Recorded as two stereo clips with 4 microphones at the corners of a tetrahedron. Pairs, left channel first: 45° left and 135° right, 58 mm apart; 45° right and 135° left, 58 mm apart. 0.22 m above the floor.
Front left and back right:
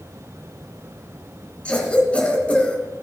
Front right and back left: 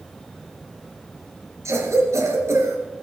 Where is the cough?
110° left, 3 m.